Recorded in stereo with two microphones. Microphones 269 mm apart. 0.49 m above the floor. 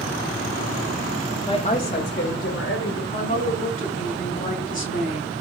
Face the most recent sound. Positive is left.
turn(degrees=30)  # may be behind; listen again after turning